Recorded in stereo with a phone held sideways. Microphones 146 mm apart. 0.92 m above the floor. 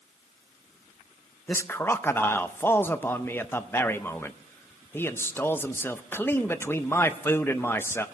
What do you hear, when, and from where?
1.5 s a man speaking: 15° left (ahead or behind), 0.6 m